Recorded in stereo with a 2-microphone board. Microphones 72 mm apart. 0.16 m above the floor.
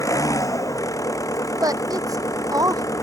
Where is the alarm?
No alarm in this recording.